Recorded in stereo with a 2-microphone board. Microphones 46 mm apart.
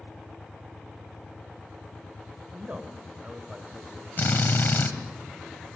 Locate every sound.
2.5 s a man speaking: 35° right (ahead or behind), 1.7 m; by 4.1 s 20° right (ahead or behind), 2.5 m
4.2 s a drill: 50° left (ahead or behind), 1.7 m